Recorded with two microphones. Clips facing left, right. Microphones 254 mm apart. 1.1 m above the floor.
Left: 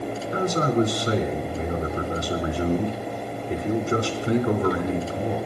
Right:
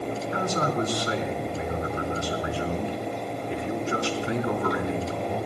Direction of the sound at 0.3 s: 45° left (ahead or behind).